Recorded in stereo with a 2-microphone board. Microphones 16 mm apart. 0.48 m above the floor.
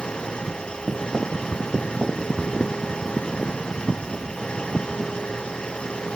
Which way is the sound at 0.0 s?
70° left (ahead or behind).